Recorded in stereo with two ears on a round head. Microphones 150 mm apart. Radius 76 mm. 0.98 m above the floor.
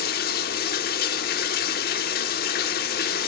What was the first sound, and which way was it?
Running water, 65° left (ahead or behind).